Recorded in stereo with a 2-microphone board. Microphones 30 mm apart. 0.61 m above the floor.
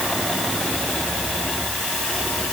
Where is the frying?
I don't hear frying.